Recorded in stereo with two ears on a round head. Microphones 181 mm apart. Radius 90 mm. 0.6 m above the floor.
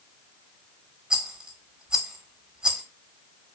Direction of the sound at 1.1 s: 5° right (ahead or behind).